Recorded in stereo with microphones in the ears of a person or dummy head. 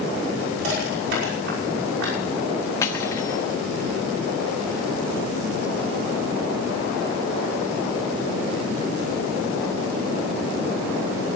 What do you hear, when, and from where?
0.6 s crushing: 75° right (ahead or behind), 5.5 m
2.8 s cutlery clinking: 20° left (ahead or behind), 1.3 m